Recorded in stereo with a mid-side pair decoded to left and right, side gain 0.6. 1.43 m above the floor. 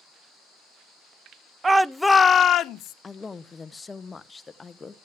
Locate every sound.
1.6 s a shout: 25° right, 0.6 m; by 2.9 s 65° left, 0.9 m
3.0 s a man speaking: 20° left, 0.7 m